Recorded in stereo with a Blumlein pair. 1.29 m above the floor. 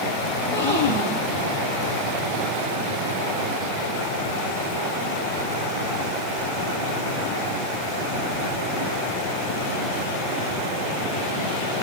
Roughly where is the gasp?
Left.